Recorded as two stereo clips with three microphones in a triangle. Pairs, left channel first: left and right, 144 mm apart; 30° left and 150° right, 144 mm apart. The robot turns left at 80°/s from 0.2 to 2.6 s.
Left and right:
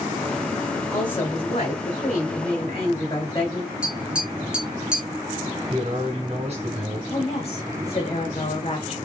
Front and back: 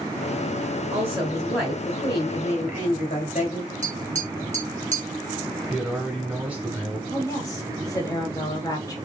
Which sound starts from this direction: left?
A woman speaking, at 7.1 s.